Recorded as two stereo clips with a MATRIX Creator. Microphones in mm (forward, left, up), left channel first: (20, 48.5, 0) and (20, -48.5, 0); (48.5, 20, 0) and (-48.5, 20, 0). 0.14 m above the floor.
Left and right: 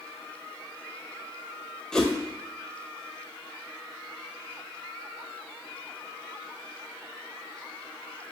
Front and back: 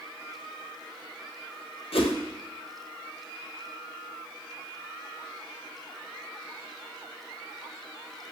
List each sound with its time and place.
1.9 s a whoosh: 5° left, 0.7 m